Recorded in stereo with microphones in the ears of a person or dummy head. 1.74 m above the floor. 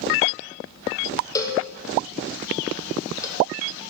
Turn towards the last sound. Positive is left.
turn(degrees=15)  # may be behind; listen again after turning